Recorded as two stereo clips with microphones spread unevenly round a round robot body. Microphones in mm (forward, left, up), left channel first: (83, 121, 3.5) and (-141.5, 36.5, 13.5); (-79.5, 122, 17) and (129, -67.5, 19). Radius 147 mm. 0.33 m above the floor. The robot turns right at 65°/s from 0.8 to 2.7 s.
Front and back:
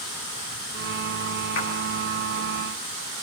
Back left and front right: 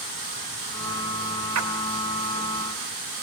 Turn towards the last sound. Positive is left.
turn(degrees=40)